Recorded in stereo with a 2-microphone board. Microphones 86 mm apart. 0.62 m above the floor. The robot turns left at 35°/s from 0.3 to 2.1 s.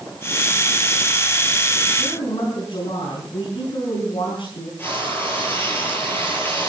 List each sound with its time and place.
2.0 s a woman speaking: 70° left (ahead or behind), 5.5 m
4.8 s frying: 25° left (ahead or behind), 9.5 m